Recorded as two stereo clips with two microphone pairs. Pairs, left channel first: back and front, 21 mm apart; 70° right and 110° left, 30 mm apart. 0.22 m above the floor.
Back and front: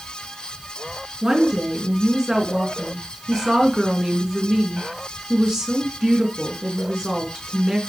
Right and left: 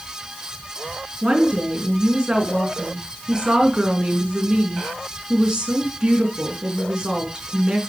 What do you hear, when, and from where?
1.2 s a woman speaking: 55° left, 3 m